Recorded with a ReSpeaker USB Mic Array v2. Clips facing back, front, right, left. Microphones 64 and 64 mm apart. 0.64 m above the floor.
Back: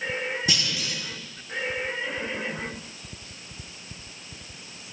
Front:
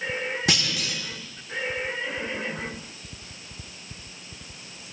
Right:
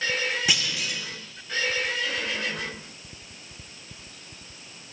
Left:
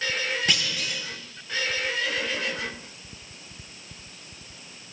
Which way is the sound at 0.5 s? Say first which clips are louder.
Front 2 dB, even; 5° right.